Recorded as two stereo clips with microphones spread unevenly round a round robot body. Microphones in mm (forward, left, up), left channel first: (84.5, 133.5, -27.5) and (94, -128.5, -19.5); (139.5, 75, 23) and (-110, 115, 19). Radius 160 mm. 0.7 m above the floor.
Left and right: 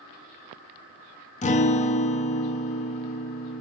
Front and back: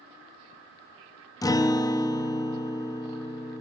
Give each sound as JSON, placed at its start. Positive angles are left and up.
{"t": 1.4, "sound": "a guitar", "azimuth_deg": 60, "distance_m": 0.6}